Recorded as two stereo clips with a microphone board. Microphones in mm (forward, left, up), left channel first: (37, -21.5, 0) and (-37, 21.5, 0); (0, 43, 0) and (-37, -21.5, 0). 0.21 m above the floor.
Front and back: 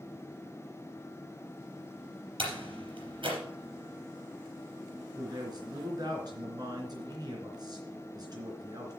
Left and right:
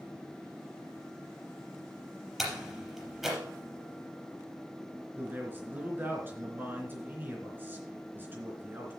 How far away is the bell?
No bell in this recording.